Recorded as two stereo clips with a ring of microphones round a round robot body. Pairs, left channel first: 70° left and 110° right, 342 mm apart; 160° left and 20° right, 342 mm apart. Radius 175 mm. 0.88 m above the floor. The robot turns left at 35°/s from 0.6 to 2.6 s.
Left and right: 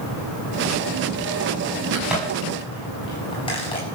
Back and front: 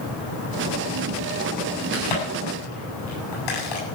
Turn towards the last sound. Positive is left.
turn(degrees=145)